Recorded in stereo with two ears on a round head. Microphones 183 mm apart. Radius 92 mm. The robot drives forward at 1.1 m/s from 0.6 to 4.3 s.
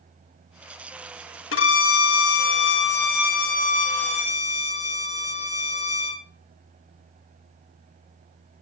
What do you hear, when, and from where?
1.5 s a violin: 65° left (ahead or behind), 1.8 m; by 6.2 s 35° left (ahead or behind), 3 m